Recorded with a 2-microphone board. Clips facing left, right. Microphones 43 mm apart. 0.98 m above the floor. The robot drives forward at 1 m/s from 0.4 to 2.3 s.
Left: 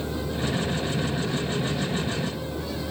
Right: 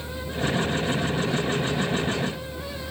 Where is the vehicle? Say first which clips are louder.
Even; 40° left (ahead or behind); by 2.9 s 30° left (ahead or behind).